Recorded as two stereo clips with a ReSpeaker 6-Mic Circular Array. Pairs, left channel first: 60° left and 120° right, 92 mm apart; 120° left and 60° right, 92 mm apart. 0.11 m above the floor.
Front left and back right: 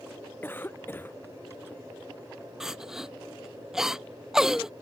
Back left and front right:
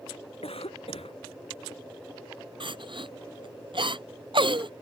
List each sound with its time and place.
0.4 s a cough: 130° left
2.6 s crying: 35° right